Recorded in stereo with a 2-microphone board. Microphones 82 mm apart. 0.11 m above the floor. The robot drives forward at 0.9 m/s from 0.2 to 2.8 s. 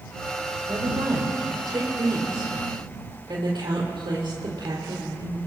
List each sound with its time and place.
0.7 s a woman speaking: 50° right (ahead or behind), 4.5 m; by 5.4 s 65° right (ahead or behind), 4 m